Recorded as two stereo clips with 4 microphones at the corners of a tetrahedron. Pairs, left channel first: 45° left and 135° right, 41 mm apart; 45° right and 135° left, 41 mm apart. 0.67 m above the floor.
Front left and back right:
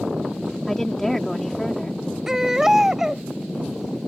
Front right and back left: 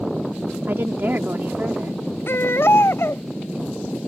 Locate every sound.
0.7 s a woman speaking: 125° left
2.3 s a baby crying: 55° right